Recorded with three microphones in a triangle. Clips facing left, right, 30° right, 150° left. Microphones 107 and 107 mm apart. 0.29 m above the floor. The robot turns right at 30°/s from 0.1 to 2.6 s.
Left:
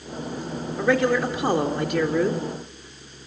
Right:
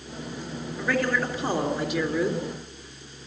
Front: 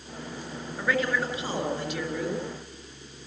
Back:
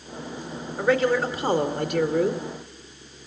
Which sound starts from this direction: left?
A man speaking, at 0.8 s.